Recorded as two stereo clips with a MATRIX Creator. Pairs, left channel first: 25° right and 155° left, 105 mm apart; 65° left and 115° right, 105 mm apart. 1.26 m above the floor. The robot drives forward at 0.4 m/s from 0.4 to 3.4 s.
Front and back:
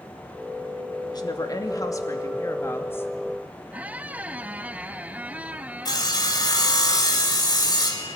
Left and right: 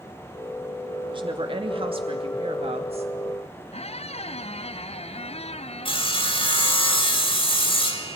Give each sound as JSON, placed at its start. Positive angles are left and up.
{"t": 1.1, "sound": "a woman speaking", "azimuth_deg": -75, "distance_m": 2.5}
{"t": 3.7, "sound": "a squeak", "azimuth_deg": 80, "distance_m": 0.6}
{"t": 5.8, "sound": "sawing", "azimuth_deg": 30, "distance_m": 2.5}